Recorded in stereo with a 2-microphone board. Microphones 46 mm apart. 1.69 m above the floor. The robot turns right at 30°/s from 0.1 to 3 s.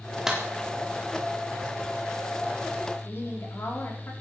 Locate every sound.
0.3 s a clap: 10° right (ahead or behind), 4 m; by 0.4 s 5° right (ahead or behind), 4 m
3.0 s a woman speaking: 55° left (ahead or behind), 5 m